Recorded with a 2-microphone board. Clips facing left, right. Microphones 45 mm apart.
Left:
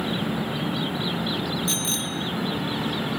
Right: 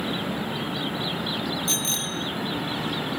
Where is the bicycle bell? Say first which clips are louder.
Left 1 dB; centre (ahead or behind), 2.5 m.